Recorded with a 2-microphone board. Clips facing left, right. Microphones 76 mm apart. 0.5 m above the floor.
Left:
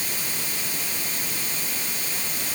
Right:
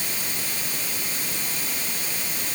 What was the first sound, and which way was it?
Only background noise.